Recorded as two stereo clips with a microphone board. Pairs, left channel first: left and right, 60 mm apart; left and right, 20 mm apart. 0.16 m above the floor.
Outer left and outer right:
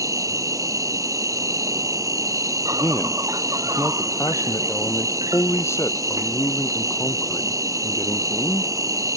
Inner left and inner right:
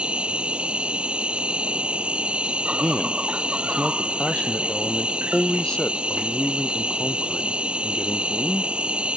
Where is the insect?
65° right (ahead or behind).